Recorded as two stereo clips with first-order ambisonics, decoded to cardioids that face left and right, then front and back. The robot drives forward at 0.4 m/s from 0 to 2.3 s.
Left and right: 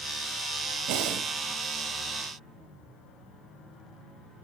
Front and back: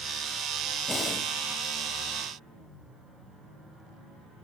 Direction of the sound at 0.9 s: 75° right.